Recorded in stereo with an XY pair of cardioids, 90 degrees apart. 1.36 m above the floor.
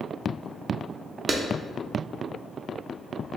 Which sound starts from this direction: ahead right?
A clap, at 1.3 s.